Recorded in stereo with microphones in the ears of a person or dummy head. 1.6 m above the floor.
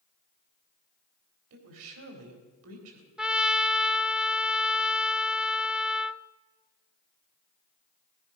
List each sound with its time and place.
1.5 s a woman speaking: 75° right (ahead or behind), 4 m
3.2 s a trumpet: 10° right (ahead or behind), 0.5 m